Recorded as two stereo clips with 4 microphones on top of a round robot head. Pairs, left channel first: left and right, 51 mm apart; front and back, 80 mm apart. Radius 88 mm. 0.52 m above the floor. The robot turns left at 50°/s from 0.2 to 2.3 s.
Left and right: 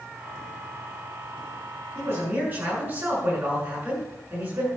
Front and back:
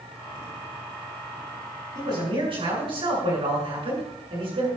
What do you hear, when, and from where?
1.9 s a man speaking: 140° right, 7.5 m; by 4.7 s 155° right, 7.5 m